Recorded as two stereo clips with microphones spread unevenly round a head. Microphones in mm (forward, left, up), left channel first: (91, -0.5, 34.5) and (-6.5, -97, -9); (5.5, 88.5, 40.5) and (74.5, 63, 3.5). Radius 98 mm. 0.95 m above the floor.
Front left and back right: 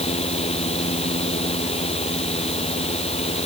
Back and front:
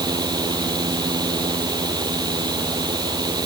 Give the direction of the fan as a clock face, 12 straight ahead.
12 o'clock.